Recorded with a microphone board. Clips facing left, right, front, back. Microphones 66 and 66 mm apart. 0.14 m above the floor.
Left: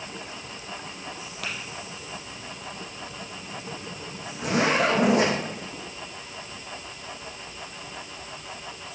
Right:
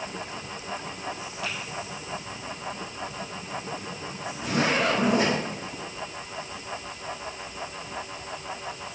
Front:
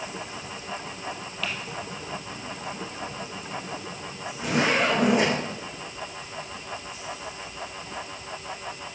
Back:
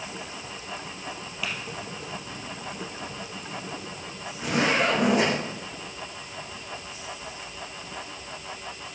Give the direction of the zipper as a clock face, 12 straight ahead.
9 o'clock.